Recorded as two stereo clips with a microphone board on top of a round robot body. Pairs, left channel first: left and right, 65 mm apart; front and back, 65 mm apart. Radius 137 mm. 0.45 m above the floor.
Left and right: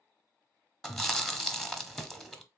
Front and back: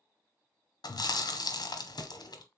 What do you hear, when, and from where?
0.8 s chewing: 5° left, 0.9 m